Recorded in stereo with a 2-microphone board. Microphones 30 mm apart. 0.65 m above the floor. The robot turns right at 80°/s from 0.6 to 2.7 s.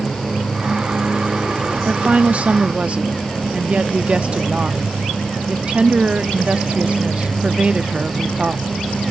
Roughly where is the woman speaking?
Behind right.